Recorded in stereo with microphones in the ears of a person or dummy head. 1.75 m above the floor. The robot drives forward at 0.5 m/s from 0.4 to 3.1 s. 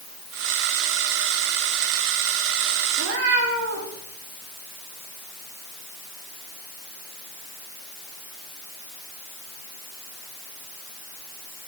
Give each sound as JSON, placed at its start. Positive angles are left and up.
{"t": 3.0, "sound": "a cat meowing", "side_deg": -55, "distance_m": 2.0}